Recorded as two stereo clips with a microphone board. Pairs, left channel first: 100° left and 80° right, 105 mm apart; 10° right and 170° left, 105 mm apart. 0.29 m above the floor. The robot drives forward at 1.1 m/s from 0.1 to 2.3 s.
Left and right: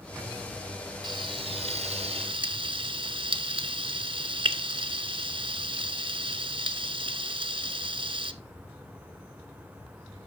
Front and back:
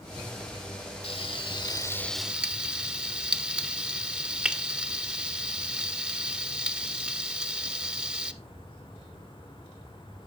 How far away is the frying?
About 1.3 m.